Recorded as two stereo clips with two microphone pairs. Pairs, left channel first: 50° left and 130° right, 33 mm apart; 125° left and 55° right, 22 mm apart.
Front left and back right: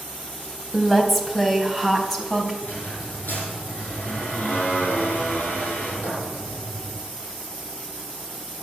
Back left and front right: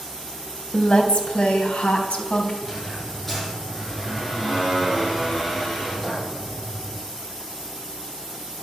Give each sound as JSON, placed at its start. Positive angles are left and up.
{"t": 0.7, "sound": "a woman speaking", "azimuth_deg": 140, "distance_m": 2.5}
{"t": 2.6, "sound": "a squeak", "azimuth_deg": 45, "distance_m": 9.0}